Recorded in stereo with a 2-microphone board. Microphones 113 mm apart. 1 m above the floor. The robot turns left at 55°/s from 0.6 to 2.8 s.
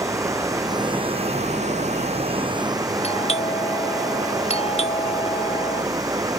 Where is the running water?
30° right; by 6.4 s 150° right.